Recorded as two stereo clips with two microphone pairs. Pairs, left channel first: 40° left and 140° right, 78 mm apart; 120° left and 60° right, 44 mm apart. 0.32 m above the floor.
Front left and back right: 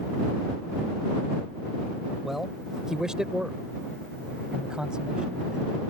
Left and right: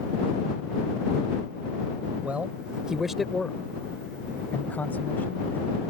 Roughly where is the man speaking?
Ahead right.